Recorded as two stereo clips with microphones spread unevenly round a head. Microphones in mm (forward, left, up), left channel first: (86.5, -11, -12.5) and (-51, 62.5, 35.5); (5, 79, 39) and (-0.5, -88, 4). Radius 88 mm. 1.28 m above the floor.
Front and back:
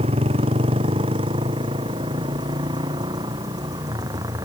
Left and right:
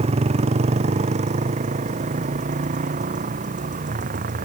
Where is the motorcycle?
150° right; by 4.5 s 135° right.